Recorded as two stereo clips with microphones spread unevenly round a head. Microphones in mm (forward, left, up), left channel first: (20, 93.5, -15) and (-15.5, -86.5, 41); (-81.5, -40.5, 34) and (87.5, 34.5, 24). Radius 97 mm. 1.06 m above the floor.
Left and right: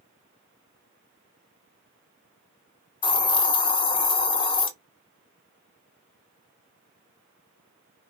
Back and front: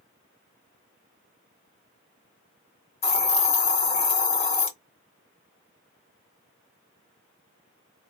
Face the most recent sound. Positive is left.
turn(degrees=150)